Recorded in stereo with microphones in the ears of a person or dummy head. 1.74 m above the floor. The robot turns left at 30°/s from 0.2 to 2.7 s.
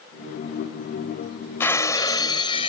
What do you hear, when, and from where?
1.6 s breaking glass: 160° left; by 2.7 s 125° left